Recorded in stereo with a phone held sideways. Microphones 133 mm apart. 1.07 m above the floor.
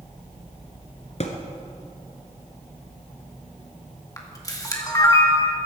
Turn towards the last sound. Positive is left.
turn(degrees=25)  # may be behind; listen again after turning